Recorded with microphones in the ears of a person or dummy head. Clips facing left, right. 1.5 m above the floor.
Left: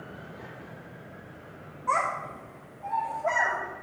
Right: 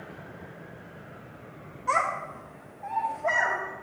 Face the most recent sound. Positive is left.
turn(degrees=5)  # may be behind; listen again after turning